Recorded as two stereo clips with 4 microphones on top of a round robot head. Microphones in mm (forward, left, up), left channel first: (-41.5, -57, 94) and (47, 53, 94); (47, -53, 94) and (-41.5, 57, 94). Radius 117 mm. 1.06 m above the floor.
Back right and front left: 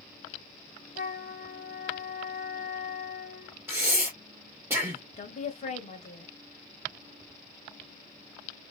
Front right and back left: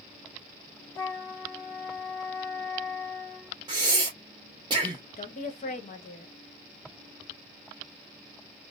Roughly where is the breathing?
Left.